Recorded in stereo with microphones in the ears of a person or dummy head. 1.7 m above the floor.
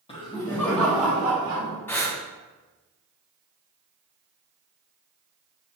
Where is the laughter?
30° left (ahead or behind), 1.5 m; by 1.8 s 35° right (ahead or behind), 1.3 m.